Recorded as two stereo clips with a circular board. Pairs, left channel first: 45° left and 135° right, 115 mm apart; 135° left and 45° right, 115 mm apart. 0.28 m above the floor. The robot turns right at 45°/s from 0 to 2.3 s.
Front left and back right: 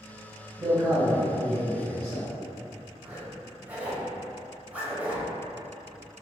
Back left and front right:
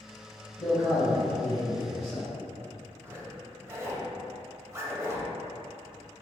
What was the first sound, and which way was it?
A man speaking, 170° right.